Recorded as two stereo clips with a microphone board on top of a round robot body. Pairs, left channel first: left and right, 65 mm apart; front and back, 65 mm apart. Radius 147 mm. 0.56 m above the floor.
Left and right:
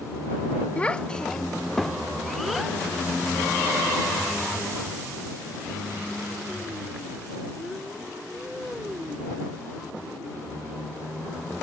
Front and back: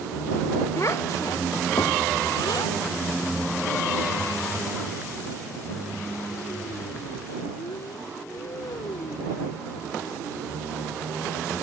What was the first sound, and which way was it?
A child speaking, 25° left.